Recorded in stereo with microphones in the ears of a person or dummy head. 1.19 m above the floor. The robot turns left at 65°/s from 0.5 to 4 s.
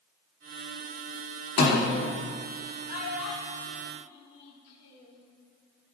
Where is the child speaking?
40° left (ahead or behind), 1.8 m; by 5.2 s 65° left (ahead or behind), 1.8 m.